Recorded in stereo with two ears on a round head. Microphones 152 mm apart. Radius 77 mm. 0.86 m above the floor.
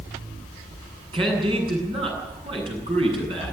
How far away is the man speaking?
About 8.5 m.